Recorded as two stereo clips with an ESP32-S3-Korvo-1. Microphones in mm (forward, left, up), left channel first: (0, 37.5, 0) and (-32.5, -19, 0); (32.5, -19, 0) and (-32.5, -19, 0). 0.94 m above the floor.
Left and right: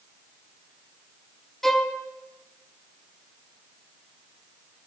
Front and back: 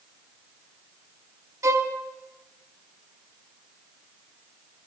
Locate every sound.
1.6 s a violin: 145° left, 0.8 m